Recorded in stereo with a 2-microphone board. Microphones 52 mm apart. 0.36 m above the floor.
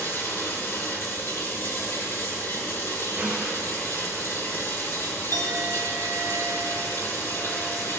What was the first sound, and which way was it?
Running water, 60° left (ahead or behind).